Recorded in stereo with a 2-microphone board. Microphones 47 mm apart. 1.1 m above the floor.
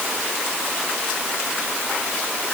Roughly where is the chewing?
I don't hear chewing.